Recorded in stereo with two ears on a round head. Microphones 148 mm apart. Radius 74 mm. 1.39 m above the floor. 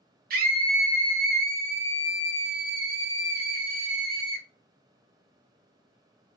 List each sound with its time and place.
0.3 s a scream: 55° right (ahead or behind), 0.5 m